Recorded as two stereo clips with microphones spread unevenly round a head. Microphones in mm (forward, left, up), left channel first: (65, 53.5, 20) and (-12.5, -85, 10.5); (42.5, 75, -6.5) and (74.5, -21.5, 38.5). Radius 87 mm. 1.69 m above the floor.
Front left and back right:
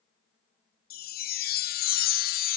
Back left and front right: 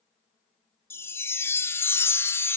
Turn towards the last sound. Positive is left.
turn(degrees=35)